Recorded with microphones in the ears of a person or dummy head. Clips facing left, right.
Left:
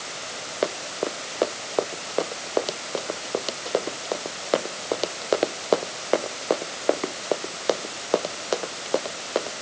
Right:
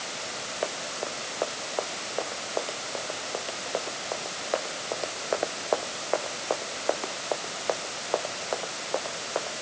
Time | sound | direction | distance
0.6 | running footsteps | 50° left (ahead or behind) | ?